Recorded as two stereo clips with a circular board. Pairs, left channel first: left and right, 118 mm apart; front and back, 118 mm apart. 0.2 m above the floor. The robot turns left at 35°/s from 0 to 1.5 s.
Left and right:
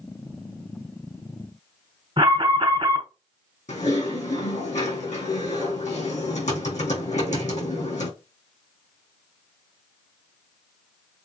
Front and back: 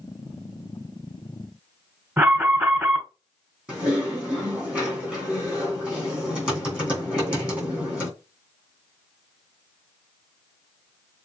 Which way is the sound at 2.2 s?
110° right.